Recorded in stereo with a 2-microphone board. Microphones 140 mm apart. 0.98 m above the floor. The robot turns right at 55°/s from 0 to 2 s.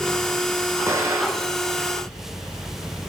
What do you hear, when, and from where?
0.9 s an explosion: 20° right (ahead or behind), 0.7 m; by 1.6 s 10° right (ahead or behind), 0.7 m